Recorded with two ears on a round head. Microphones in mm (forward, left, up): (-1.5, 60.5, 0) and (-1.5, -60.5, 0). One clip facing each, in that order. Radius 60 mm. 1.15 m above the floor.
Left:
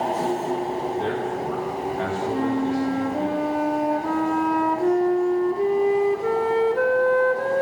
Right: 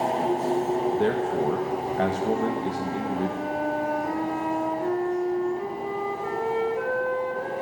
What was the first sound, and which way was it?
A man speaking, 55° right (ahead or behind).